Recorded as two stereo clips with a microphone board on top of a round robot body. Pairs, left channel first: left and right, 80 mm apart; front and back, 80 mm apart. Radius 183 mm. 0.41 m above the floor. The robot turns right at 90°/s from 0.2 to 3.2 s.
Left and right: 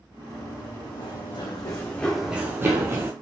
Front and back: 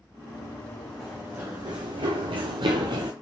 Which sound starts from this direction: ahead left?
Running footsteps, at 0.3 s.